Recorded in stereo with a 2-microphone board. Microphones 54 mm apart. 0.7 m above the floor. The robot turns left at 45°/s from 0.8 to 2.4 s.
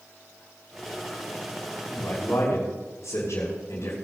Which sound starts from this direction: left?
A man speaking, at 1.9 s.